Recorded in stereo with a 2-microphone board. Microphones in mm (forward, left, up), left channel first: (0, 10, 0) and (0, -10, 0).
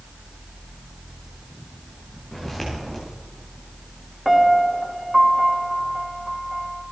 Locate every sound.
2.3 s footsteps: 10° left (ahead or behind), 5.5 m
4.2 s a piano: 5° right (ahead or behind), 2.5 m